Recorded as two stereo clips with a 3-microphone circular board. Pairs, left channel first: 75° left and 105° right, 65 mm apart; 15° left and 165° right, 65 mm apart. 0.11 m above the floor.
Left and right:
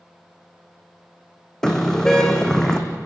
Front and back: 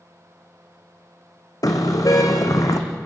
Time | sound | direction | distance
1.6 | a car horn | 5° right | 2.5 m